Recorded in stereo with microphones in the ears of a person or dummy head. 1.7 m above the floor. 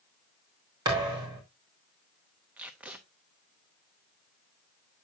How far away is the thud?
About 1.3 m.